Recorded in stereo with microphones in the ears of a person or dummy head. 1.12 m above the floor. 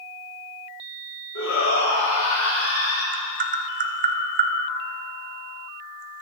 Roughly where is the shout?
Left.